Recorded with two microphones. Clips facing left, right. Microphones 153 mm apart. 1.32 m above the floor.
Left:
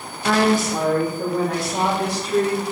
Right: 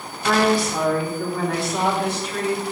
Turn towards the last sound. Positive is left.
turn(degrees=40)  # may be behind; listen again after turning